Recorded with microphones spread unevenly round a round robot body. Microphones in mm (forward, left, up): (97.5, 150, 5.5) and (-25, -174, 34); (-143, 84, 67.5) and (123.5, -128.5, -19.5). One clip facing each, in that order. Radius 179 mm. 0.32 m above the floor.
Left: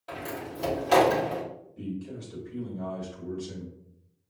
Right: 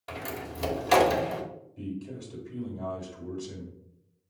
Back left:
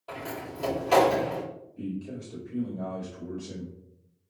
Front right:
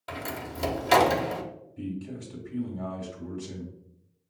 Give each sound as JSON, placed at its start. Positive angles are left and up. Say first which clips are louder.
{"t": 0.1, "sound": "a door slam", "louder": "left 1 dB, even", "azimuth_deg": -45, "distance_m": 0.9}
{"t": 1.8, "sound": "a man speaking", "louder": "even, even", "azimuth_deg": -20, "distance_m": 1.4}